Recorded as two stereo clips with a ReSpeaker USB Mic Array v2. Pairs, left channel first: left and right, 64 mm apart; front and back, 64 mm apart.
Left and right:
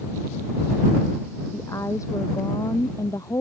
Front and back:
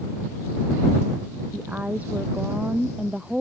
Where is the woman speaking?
120° left; by 3.4 s 105° left.